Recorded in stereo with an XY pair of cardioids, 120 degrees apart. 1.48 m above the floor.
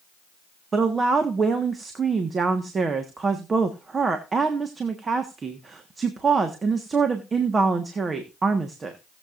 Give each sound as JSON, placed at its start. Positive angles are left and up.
{"t": 0.7, "sound": "a woman speaking", "azimuth_deg": -30, "distance_m": 1.4}